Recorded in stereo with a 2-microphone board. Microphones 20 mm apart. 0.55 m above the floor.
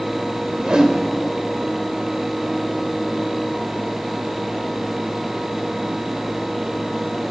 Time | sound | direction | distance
0.6 | a whoosh | 45° right (ahead or behind) | 2.5 m